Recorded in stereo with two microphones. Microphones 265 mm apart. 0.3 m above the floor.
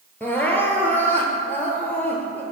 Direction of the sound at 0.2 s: 5° left (ahead or behind).